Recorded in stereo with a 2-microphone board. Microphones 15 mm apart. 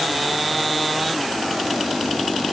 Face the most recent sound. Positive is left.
No sound to turn to.